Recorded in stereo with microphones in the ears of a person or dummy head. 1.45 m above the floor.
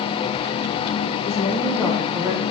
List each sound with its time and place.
1.2 s a woman speaking: 35° left (ahead or behind), 1.8 m; by 2.4 s 25° right (ahead or behind), 1.3 m